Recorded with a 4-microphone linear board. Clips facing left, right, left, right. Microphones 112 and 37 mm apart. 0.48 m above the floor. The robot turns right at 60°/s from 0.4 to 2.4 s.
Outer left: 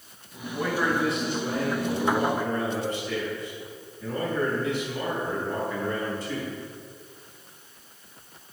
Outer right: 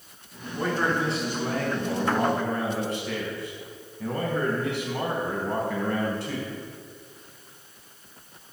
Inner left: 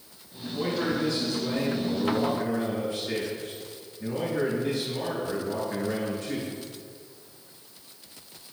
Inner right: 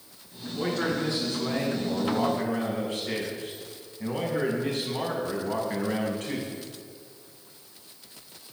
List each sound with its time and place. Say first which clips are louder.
0.5 s a man speaking: even, even; 175° left, 4.5 m; by 6.5 s 70° right, 4.5 m